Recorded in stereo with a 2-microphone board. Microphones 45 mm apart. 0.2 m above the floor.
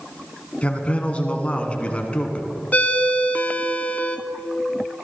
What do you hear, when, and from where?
0.6 s a man speaking: 30° left (ahead or behind), 1.7 m
2.7 s a ringtone: 40° left (ahead or behind), 0.9 m